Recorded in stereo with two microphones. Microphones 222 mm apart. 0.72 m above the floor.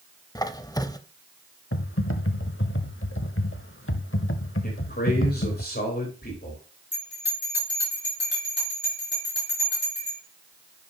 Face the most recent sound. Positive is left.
turn(degrees=55)  # may be behind; listen again after turning